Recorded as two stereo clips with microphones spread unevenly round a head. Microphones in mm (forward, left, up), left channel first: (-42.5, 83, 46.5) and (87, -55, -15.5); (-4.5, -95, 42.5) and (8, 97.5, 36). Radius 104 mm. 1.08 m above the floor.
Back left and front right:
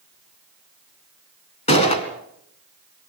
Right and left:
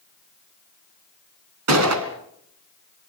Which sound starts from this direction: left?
A gunshot, at 1.7 s.